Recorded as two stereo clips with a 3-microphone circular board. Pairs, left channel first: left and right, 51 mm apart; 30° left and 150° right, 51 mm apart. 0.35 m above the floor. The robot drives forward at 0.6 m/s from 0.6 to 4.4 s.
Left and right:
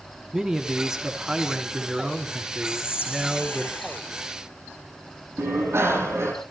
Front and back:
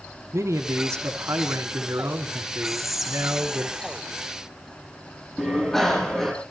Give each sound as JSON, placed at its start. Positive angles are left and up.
{"t": 0.3, "sound": "a man speaking", "azimuth_deg": -165, "distance_m": 2.5}
{"t": 2.6, "sound": "whispering", "azimuth_deg": 120, "distance_m": 1.6}
{"t": 5.4, "sound": "a bicycle bell", "azimuth_deg": -55, "distance_m": 9.0}